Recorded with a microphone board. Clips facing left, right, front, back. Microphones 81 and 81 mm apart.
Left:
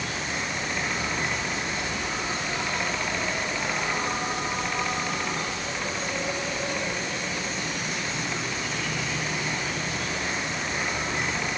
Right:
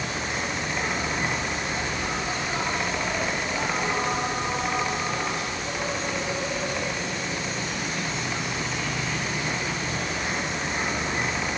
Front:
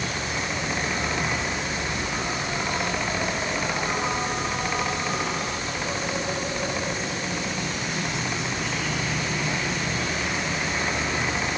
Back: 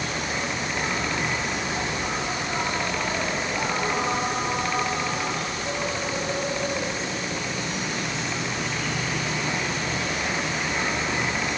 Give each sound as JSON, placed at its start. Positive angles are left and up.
{"t": 0.0, "sound": "an insect", "azimuth_deg": -145, "distance_m": 3.5}